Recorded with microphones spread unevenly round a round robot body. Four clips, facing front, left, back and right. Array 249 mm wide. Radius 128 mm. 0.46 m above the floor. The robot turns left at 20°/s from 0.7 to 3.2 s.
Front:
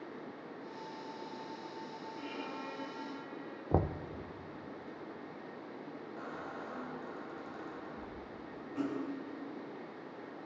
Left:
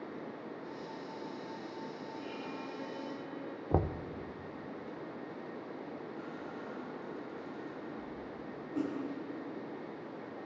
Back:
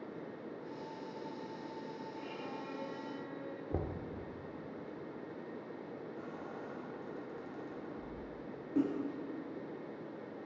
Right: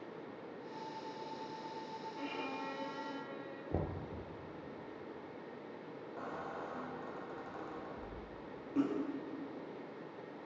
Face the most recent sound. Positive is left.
turn(degrees=-175)